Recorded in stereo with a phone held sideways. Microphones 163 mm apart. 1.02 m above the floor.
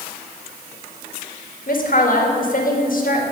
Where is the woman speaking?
60° left (ahead or behind), 1.7 m.